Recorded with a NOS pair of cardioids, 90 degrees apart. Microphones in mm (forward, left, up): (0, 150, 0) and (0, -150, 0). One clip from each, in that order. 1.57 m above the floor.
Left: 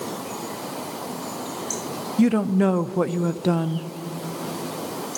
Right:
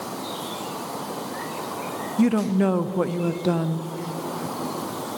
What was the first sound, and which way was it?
A woman speaking, 15° left.